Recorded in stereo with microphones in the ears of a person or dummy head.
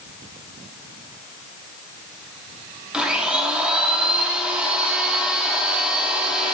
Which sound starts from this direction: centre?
A blender, at 2.9 s.